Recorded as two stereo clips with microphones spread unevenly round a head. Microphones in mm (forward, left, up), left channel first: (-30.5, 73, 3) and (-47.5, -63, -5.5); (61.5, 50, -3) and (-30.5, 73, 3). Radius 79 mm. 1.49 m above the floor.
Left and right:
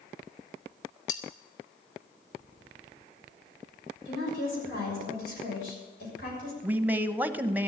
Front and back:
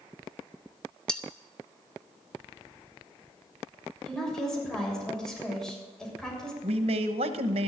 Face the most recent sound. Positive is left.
turn(degrees=-175)